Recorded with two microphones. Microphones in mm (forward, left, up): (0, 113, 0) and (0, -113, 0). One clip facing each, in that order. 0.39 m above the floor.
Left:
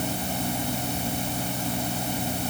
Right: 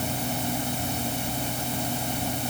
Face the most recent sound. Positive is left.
No sound to turn to.